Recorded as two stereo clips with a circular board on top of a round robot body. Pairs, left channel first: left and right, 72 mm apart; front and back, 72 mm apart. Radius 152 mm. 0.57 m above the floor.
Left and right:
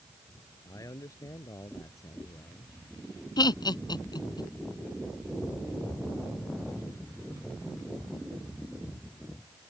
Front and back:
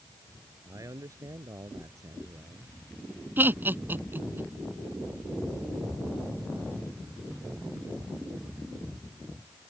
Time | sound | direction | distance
0.7 | a man speaking | 135° left | ?
3.4 | laughter | 115° left | ?